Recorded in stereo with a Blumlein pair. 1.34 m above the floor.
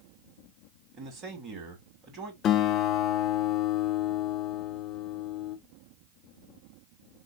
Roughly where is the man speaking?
Ahead right.